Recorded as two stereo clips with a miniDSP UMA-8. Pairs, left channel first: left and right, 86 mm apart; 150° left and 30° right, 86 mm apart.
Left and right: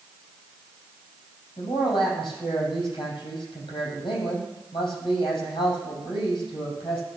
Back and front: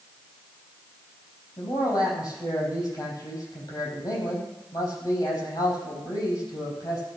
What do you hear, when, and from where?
1.6 s a man speaking: 110° left, 5.5 m